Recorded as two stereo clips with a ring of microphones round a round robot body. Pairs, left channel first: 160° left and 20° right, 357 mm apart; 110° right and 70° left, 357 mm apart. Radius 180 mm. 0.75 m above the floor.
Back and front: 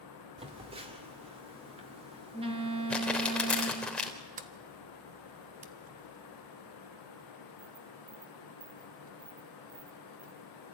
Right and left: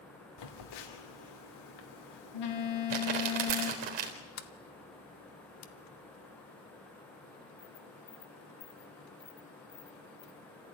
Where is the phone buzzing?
95° right, 2.5 m.